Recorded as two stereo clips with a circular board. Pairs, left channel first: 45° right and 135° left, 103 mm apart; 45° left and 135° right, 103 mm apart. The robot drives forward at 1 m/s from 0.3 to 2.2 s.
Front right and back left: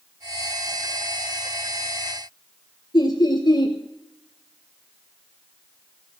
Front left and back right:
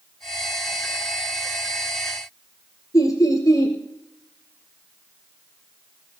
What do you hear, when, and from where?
2.9 s laughter: 5° right, 3 m